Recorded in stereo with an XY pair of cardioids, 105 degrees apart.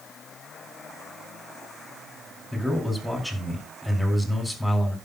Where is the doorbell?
I don't hear a doorbell.